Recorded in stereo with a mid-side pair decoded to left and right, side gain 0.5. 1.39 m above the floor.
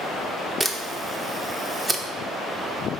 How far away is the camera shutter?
About 0.5 m.